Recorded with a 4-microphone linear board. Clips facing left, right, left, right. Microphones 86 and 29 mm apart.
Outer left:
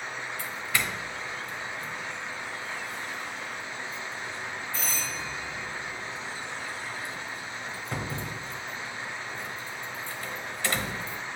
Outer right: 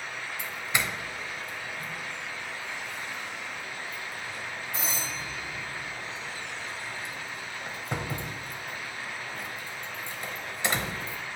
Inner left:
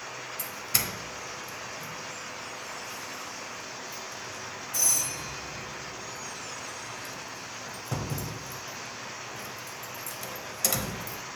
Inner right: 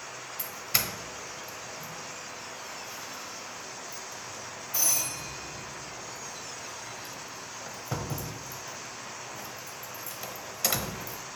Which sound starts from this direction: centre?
A doorbell, at 0.4 s.